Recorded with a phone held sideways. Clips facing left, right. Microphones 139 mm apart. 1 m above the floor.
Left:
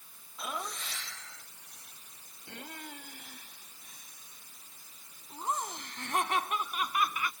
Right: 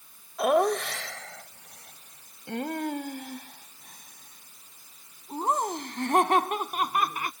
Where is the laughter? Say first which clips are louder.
Right 17 dB; 75° right (ahead or behind); by 7.3 s 45° right (ahead or behind).